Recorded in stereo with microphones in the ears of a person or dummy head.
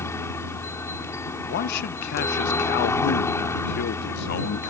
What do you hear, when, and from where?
0.0 s a helicopter: 15° left (ahead or behind)
1.5 s a man speaking: 60° left (ahead or behind)